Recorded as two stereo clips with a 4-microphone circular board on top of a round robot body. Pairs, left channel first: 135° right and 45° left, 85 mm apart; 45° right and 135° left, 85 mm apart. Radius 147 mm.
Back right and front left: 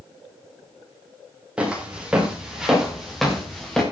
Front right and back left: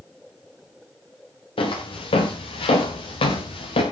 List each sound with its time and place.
1.6 s footsteps: 35° right, 6.5 m; by 3.8 s 50° right, 5.5 m